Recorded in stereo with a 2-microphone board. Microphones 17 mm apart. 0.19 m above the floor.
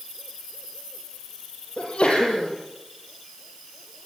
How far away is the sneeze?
About 6 m.